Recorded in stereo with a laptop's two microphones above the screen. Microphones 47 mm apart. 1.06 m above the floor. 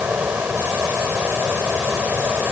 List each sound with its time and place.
0.0 s a fan: 40° right (ahead or behind)